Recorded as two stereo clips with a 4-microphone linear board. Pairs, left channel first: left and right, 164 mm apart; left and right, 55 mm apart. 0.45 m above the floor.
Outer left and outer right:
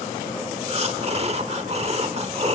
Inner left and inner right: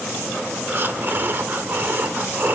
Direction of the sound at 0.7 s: 40° right (ahead or behind).